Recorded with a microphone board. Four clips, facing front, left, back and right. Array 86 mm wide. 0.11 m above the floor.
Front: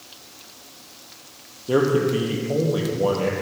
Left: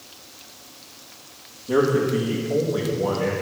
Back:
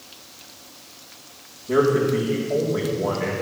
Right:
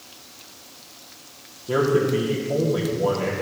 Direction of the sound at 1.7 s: 15° right.